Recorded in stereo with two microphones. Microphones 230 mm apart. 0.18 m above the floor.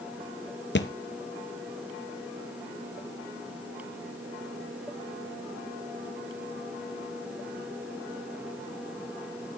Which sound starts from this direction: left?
A thud, at 0.8 s.